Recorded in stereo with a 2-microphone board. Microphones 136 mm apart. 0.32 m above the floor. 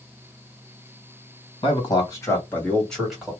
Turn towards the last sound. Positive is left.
turn(degrees=-10)  # may be behind; listen again after turning